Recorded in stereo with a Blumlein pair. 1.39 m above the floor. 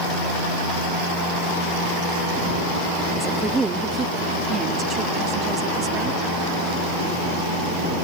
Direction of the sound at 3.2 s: 5° right.